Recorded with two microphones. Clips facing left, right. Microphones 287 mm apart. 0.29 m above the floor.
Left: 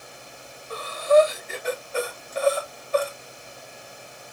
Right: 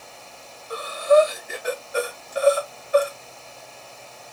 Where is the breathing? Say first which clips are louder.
Right 1 dB; 10° right (ahead or behind), 0.8 m.